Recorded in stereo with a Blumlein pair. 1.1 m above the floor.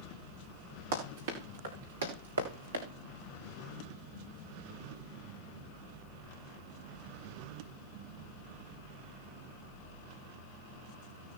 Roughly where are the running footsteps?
Ahead right.